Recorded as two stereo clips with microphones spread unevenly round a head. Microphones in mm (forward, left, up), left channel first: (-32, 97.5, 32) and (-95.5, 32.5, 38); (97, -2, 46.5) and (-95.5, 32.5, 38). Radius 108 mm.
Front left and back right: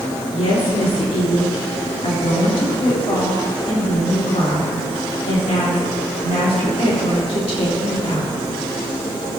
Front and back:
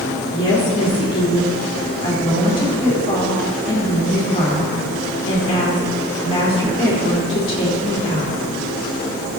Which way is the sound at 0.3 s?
55° left.